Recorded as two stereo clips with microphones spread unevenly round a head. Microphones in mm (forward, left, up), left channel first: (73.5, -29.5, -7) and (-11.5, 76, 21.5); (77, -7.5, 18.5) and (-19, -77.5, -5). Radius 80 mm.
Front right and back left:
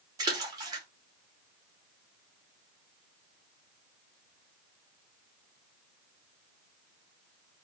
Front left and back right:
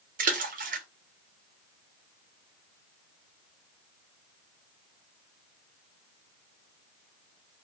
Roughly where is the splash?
Behind.